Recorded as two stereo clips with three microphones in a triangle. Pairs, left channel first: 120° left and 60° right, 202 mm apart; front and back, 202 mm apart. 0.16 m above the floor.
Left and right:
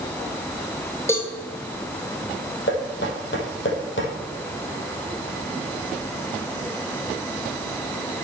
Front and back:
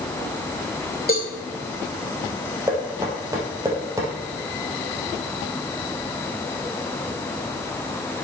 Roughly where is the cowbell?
Ahead left.